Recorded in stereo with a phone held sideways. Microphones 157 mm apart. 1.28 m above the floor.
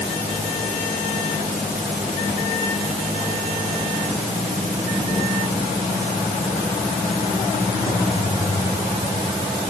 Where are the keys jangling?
No keys jangling in this recording.